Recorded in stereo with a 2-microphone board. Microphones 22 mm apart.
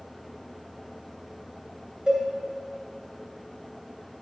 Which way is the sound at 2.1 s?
50° right (ahead or behind).